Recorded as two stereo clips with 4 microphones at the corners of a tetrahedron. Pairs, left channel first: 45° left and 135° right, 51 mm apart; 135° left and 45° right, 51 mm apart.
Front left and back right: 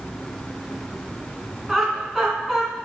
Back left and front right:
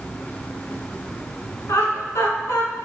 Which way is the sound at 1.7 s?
140° left.